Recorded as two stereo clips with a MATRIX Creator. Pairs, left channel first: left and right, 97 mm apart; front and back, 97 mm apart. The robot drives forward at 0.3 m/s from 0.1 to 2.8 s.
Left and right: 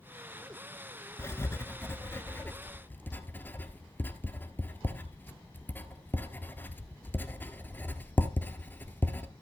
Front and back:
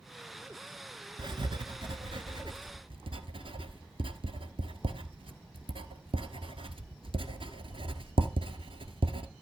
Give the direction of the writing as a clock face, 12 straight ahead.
7 o'clock.